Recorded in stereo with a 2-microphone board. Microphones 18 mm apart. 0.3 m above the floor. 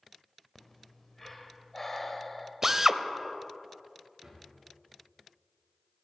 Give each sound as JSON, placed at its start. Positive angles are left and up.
{"t": 0.6, "sound": "breathing", "side_deg": 15, "distance_m": 1.3}
{"t": 2.6, "sound": "a drill", "side_deg": -20, "distance_m": 0.6}
{"t": 4.2, "sound": "a drawer", "side_deg": -45, "distance_m": 5.5}